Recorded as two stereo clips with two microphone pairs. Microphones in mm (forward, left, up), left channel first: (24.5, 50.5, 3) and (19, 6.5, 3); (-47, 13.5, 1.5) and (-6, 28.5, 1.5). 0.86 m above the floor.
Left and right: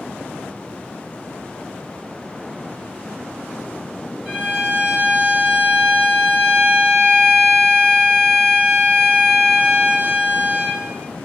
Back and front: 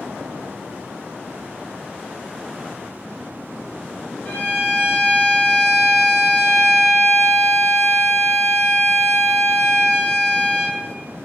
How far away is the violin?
About 1.8 m.